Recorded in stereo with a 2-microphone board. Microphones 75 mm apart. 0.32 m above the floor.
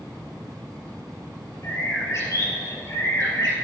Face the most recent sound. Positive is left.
turn(degrees=40)  # may be behind; listen again after turning